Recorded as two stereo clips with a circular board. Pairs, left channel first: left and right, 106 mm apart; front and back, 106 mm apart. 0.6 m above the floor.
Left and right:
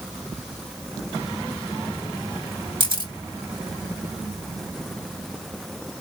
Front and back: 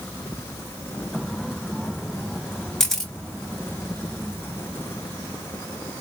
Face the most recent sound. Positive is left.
turn(degrees=-85)